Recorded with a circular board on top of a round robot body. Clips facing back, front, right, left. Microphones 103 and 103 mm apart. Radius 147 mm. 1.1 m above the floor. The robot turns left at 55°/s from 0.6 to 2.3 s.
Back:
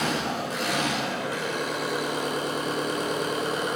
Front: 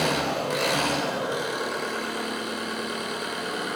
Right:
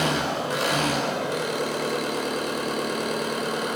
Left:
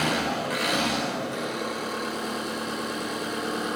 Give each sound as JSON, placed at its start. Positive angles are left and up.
{"t": 0.0, "sound": "an engine running", "azimuth_deg": -30, "distance_m": 2.0}